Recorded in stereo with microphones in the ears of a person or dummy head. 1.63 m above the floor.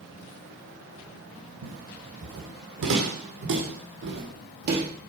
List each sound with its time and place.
1.6 s footsteps: 65° right (ahead or behind), 5 m; by 4.9 s 50° right (ahead or behind), 4 m